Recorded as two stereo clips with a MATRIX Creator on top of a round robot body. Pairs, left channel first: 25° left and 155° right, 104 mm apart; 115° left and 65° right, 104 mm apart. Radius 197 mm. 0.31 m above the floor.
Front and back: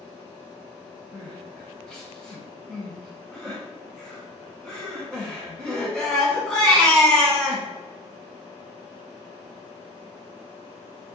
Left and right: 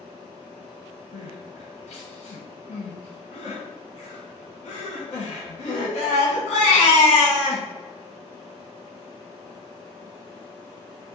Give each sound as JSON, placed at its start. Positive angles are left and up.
{"t": 1.1, "sound": "crying", "azimuth_deg": 105, "distance_m": 1.0}